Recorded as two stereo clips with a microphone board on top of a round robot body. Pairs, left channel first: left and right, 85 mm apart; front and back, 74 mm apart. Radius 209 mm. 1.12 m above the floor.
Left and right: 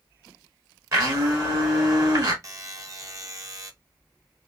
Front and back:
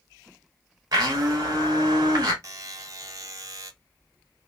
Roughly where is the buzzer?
Behind right.